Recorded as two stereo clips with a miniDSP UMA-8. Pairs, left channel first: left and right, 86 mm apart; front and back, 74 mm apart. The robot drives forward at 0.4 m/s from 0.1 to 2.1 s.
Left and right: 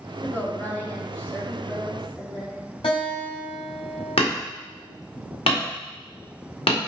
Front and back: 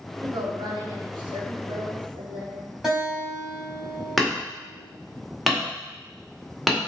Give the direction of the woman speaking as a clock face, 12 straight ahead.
7 o'clock.